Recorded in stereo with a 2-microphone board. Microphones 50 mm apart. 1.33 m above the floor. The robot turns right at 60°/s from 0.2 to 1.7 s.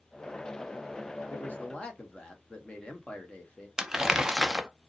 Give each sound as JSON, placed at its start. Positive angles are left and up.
{"t": 1.3, "sound": "a man speaking", "side_deg": 45, "distance_m": 1.3}
{"t": 3.8, "sound": "crumpling", "side_deg": -10, "distance_m": 0.6}